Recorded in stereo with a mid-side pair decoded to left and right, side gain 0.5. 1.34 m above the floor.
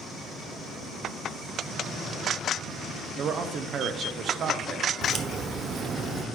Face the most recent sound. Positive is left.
turn(degrees=-50)